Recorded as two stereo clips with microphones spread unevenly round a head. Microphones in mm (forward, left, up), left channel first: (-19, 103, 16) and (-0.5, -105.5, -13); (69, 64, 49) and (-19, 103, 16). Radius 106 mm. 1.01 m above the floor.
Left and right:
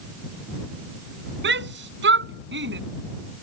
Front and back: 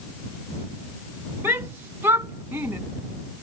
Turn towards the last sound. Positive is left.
turn(degrees=-125)